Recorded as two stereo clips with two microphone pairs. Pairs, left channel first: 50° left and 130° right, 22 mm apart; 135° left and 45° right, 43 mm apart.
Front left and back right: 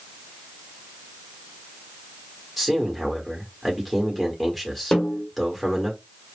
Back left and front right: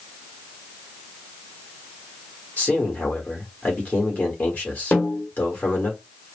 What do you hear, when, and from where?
2.6 s a man speaking: 140° left, 1.3 m
4.9 s a snare drum: 90° left, 1.9 m